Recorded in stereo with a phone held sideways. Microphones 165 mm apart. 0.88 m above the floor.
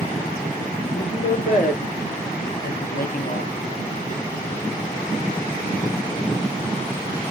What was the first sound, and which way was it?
A woman speaking, 65° left (ahead or behind).